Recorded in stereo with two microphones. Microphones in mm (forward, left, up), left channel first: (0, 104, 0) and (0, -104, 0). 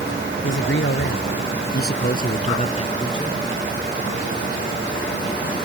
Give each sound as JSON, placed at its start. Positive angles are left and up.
{"t": 0.4, "sound": "a man speaking", "side_deg": 70}